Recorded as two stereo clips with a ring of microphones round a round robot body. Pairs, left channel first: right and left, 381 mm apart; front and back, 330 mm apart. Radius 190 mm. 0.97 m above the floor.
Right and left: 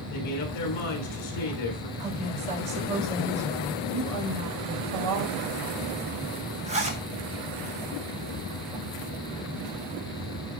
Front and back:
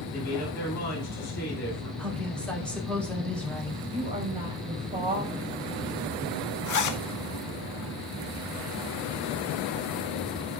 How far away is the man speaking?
About 4 m.